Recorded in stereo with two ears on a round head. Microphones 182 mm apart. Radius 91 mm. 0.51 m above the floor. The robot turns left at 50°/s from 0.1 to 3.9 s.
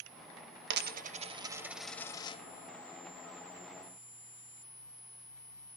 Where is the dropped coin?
55° right (ahead or behind), 0.5 m; by 2.4 s 25° left (ahead or behind), 0.5 m.